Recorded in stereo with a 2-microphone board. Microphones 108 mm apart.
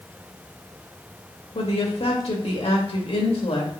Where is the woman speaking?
75° left (ahead or behind), 2 m.